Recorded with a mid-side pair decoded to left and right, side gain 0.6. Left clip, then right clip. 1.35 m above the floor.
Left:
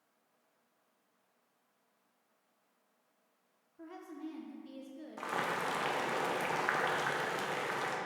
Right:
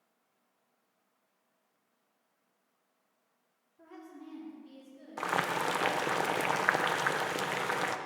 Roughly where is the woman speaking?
Ahead left.